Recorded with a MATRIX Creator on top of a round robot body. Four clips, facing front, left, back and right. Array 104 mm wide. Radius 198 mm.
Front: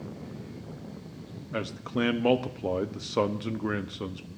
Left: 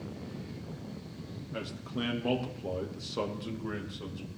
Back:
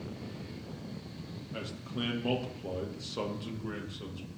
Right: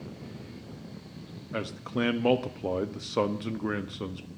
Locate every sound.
1.5 s a man speaking: 40° right, 1.1 m